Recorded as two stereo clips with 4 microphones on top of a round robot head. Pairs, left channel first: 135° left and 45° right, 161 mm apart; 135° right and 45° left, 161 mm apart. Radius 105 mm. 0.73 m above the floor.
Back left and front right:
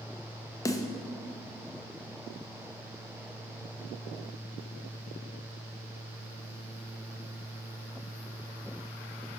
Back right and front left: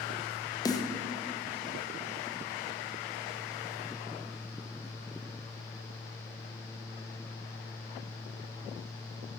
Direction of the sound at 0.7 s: 175° right.